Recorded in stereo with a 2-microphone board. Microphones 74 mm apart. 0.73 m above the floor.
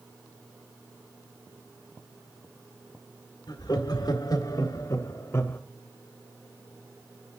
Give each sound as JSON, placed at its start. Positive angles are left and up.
{"t": 3.5, "sound": "laughter", "side_deg": 70, "distance_m": 1.7}